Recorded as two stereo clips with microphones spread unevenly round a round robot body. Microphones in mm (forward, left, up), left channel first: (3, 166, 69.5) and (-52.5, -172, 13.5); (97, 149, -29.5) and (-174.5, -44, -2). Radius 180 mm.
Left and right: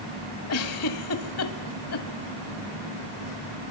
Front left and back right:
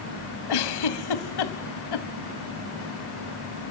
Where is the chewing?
I don't hear chewing.